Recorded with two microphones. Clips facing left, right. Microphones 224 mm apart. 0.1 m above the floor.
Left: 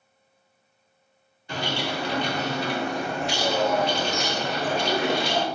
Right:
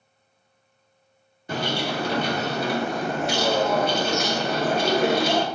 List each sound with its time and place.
1.5 s a bird: 50° right (ahead or behind), 0.6 m